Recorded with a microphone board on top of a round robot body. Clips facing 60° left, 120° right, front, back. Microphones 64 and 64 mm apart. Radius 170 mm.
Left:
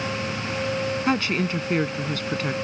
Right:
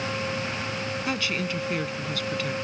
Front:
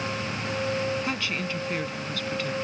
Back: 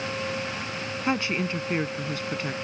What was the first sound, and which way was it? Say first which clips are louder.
A woman speaking: left 5 dB, back 3 dB; 115° left.